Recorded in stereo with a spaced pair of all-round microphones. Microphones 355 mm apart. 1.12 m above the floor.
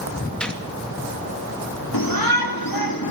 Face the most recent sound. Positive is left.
turn(degrees=65)  # may be behind; listen again after turning